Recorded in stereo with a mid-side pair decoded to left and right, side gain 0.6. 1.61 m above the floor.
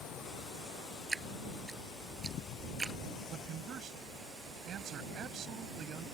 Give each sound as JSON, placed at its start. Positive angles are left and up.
{"t": 1.1, "sound": "dripping", "azimuth_deg": -20}
{"t": 3.3, "sound": "a man speaking", "azimuth_deg": -50}